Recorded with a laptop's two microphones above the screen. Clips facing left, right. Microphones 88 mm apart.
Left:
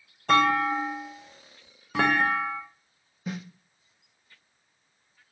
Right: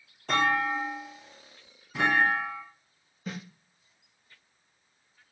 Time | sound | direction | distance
0.3 | a clunk | 70° left (ahead or behind) | 0.6 m
3.3 | a snare drum | 5° left (ahead or behind) | 1.0 m